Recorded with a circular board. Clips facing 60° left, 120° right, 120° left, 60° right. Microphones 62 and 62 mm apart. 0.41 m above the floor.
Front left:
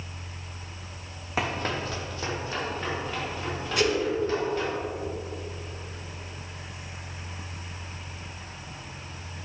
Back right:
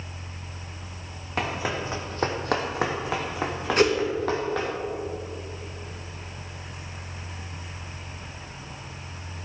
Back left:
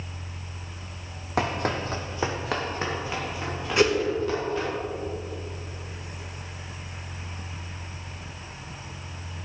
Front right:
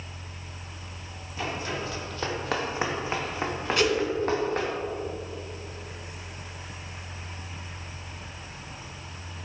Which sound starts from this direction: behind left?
Running footsteps, at 1.4 s.